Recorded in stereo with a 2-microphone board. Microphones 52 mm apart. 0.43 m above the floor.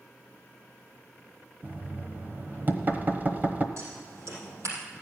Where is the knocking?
35° right (ahead or behind), 1.2 m.